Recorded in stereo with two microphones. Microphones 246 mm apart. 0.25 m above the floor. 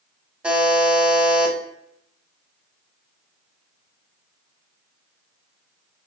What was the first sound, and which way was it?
A buzzer, 5° right (ahead or behind).